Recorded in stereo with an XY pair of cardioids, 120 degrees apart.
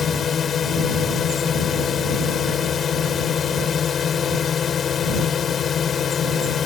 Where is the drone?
40° left.